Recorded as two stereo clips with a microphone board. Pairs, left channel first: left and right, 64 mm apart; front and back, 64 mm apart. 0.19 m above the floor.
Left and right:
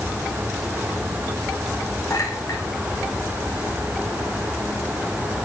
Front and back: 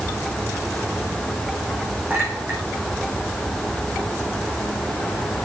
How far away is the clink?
About 7 m.